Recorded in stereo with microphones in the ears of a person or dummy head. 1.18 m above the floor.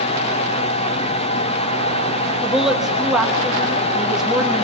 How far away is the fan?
About 1.2 m.